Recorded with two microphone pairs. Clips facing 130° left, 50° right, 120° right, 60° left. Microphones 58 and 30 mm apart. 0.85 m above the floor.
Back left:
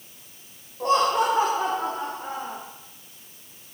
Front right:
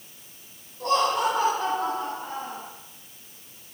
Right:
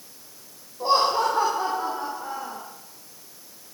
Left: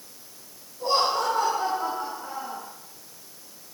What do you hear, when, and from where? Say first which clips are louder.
0.8 s laughter: back left 2 dB, right 3 dB; 165° right, 3 m; by 2.6 s 175° right, 3.5 m